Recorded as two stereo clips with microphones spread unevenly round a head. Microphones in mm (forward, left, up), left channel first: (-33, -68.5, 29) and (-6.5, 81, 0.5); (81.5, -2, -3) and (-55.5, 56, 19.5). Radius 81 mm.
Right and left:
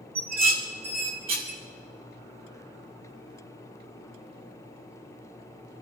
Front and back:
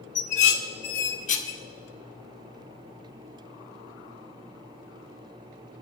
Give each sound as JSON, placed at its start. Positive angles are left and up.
{"t": 0.1, "sound": "dishes clattering", "azimuth_deg": 20, "distance_m": 2.5}